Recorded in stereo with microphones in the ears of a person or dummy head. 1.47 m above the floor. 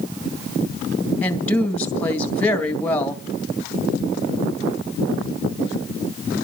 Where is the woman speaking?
10° left (ahead or behind), 1.9 m.